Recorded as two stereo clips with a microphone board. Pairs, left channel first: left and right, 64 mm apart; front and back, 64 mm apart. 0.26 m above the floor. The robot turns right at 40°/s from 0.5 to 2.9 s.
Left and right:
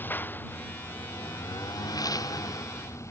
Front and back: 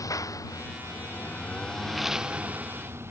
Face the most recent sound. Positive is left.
turn(degrees=130)